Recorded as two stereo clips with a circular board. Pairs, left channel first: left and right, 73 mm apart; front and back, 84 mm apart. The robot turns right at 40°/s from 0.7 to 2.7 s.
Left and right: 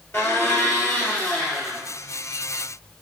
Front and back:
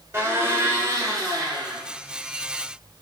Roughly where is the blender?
Behind left.